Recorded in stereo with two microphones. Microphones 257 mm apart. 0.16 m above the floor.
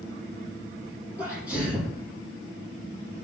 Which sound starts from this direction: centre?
A sneeze, at 1.2 s.